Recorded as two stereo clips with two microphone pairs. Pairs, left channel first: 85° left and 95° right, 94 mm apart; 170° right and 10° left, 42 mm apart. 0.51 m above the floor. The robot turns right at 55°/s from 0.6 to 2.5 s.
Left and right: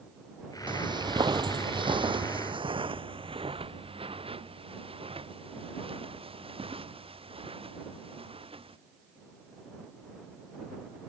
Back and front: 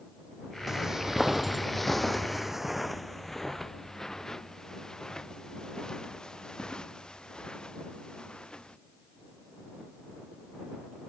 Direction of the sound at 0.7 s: 70° right.